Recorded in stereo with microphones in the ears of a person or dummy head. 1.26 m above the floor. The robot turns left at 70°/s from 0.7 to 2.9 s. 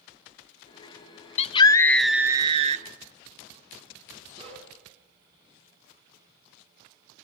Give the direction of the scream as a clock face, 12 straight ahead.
10 o'clock.